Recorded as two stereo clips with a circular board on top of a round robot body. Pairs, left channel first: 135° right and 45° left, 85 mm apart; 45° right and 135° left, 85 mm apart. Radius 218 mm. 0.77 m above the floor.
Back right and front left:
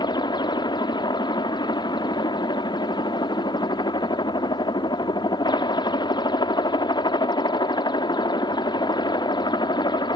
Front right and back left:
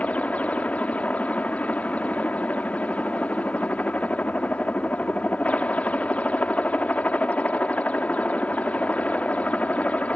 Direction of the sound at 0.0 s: 115° right.